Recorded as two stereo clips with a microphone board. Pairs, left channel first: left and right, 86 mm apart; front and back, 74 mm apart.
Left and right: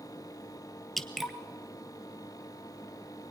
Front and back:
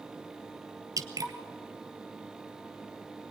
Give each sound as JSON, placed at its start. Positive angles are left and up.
{"t": 1.0, "sound": "dripping", "azimuth_deg": 175, "distance_m": 1.2}